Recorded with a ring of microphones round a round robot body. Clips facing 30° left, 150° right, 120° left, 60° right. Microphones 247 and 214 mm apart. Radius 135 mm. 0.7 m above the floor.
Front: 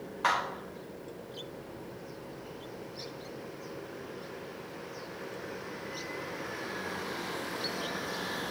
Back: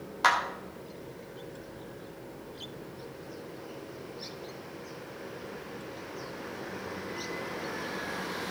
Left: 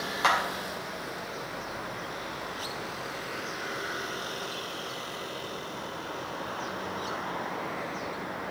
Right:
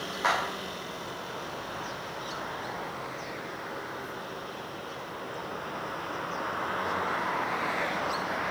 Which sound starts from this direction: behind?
A clap, at 0.2 s.